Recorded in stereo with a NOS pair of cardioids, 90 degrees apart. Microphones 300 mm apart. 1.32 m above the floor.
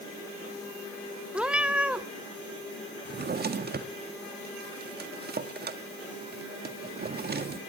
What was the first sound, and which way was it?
A cat meowing, 5° right.